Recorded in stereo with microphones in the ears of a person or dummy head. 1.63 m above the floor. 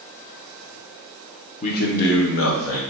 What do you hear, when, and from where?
1.6 s a man speaking: 50° left (ahead or behind), 0.7 m; by 2.8 s 80° left, 1.2 m